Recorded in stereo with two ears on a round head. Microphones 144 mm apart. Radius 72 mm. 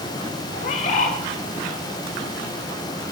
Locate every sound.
0.6 s a bird: 50° left (ahead or behind), 1.7 m